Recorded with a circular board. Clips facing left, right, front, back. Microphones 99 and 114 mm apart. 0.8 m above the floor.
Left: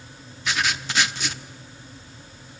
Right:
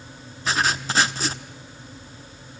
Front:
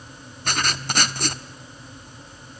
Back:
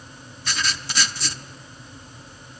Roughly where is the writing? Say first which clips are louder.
Right 3 dB, front 3 dB; ahead right.